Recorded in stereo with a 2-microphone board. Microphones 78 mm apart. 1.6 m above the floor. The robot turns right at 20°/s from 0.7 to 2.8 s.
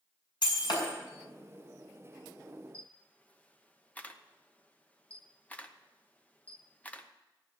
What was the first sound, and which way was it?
Breaking glass, 80° left.